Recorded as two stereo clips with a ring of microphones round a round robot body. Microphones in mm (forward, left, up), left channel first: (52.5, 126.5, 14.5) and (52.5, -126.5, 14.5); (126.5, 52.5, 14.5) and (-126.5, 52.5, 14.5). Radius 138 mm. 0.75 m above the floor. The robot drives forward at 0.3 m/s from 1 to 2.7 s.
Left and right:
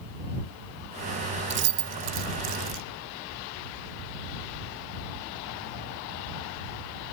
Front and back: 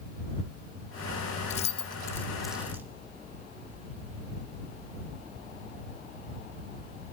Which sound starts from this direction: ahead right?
Keys jangling, at 1.5 s.